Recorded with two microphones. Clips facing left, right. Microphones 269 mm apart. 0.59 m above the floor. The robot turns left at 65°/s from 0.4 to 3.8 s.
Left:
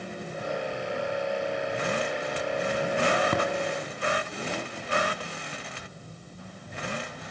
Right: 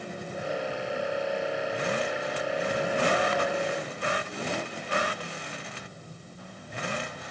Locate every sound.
3.3 s tapping: 50° left (ahead or behind), 2.5 m; by 3.4 s 60° left (ahead or behind), 2.5 m